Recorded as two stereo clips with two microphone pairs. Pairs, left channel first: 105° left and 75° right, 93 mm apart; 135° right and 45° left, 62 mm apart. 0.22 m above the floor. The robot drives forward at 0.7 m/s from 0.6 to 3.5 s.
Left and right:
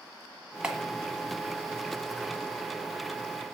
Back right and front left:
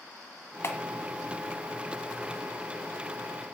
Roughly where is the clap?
Behind right.